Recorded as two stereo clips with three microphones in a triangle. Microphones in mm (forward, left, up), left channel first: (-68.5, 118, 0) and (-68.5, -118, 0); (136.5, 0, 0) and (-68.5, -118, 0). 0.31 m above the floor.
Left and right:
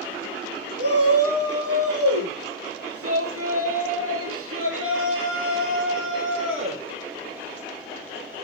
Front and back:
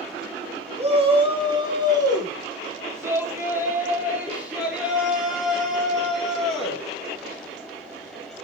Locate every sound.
0.8 s a shout: 85° right, 4 m; by 6.8 s 55° right, 7 m